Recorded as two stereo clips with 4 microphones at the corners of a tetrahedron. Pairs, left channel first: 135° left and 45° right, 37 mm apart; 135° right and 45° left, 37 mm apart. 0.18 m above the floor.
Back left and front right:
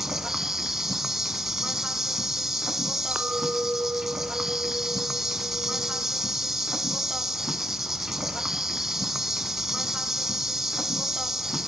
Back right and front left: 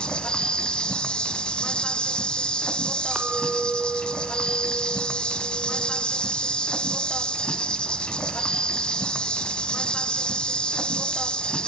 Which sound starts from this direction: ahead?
A clink, at 3.1 s.